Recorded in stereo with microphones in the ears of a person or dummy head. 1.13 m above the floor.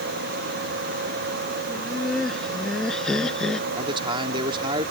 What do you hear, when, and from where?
1.7 s laughter: centre (ahead or behind); by 3.7 s 5° left (ahead or behind)
3.8 s a man speaking: 30° right (ahead or behind)